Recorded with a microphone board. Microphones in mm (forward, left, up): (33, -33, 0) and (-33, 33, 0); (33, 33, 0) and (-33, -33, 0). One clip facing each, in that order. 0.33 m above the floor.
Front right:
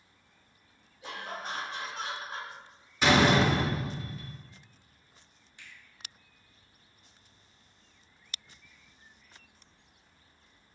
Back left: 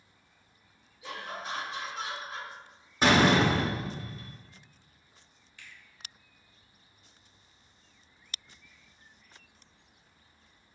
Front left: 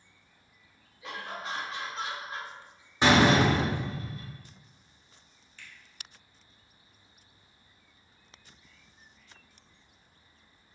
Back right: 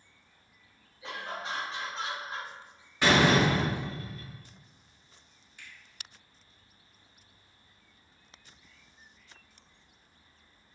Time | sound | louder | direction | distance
1.0 | laughter | even, even | 85° right | 1.9 m
3.0 | a door slam | back left 1 dB, front left 2 dB | 105° left | 0.9 m
5.6 | a finger snap | even, even | 75° right | 1.0 m